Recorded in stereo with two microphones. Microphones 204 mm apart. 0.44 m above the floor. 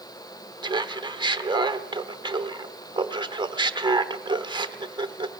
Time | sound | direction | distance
0.6 | laughter | 20° right (ahead or behind) | 0.9 m